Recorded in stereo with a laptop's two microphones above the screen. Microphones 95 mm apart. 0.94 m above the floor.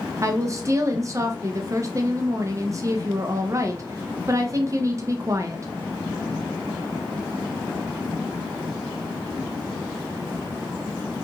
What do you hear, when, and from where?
0.2 s a woman speaking: 35° right (ahead or behind), 0.5 m